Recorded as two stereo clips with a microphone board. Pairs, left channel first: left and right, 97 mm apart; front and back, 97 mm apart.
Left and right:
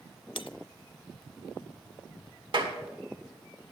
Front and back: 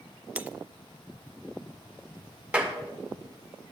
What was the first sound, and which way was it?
Breaking glass, 105° left.